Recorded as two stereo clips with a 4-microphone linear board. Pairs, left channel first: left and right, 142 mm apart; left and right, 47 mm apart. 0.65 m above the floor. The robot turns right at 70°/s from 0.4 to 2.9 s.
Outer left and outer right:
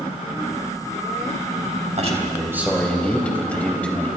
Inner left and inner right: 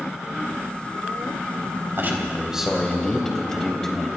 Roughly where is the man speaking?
Ahead right.